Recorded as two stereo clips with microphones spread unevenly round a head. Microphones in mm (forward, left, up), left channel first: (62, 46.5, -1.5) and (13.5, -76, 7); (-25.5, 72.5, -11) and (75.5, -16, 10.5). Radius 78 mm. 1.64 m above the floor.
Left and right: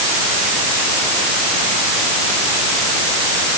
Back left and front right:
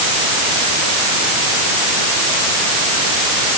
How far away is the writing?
No writing in this recording.